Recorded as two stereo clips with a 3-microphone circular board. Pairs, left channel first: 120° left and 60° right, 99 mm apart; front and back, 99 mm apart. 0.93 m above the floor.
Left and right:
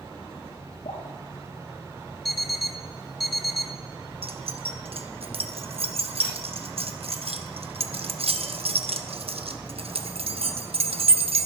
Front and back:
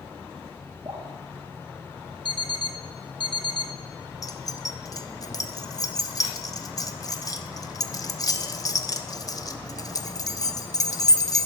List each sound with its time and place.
0.8 s dripping: 125° left, 3.5 m
2.2 s an alarm clock: 30° left, 0.7 m
4.2 s keys jangling: 55° right, 0.7 m